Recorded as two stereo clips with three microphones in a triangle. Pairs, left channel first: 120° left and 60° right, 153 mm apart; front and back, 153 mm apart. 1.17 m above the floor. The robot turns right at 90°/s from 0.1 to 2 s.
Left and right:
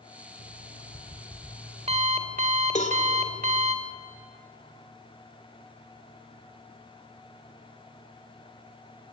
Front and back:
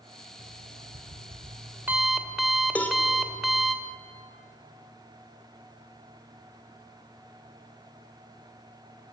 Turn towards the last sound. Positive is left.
turn(degrees=80)